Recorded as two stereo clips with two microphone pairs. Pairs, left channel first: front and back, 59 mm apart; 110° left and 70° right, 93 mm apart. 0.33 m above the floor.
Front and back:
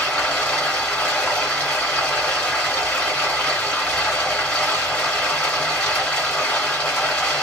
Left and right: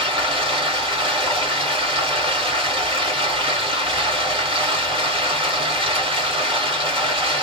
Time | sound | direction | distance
0.0 | running water | 65° right | 1.7 m